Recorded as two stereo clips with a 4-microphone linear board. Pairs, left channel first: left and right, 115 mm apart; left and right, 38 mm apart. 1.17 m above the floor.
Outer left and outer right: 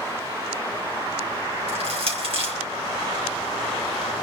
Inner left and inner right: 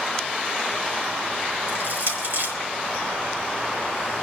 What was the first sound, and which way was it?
Crushing, 60° right (ahead or behind).